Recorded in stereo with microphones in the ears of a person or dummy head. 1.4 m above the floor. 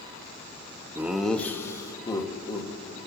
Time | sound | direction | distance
0.9 | laughter | 5° right (ahead or behind) | 0.8 m